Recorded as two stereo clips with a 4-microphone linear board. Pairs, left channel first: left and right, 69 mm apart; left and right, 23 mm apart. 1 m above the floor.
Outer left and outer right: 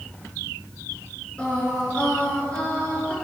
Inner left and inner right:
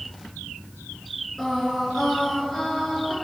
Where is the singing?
15° left (ahead or behind), 6 m.